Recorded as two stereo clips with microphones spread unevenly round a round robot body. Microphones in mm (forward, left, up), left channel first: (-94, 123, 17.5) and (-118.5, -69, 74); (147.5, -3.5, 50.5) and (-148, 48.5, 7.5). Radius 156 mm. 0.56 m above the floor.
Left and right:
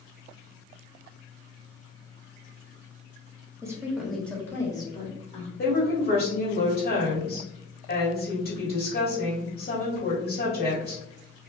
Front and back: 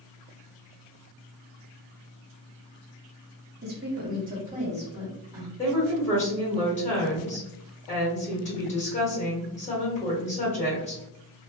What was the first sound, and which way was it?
A woman speaking, 175° left.